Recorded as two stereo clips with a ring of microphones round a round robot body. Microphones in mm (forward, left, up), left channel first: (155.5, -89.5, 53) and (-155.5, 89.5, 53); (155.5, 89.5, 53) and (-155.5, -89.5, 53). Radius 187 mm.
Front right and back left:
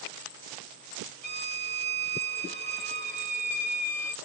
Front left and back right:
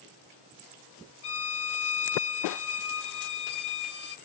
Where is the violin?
50° left, 0.6 m.